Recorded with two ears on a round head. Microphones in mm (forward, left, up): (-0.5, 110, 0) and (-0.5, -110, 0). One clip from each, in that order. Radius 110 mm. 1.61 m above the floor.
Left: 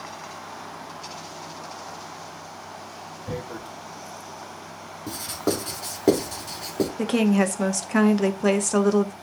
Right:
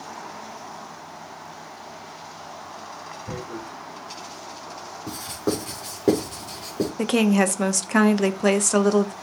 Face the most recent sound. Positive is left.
turn(degrees=-15)  # may be behind; listen again after turning